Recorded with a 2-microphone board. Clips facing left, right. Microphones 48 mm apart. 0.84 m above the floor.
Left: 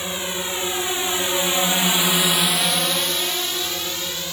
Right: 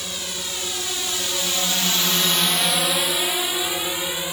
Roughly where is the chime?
No chime in this recording.